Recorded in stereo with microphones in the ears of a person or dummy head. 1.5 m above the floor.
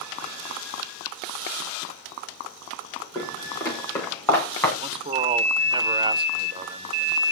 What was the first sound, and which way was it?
Footsteps, 20° left (ahead or behind).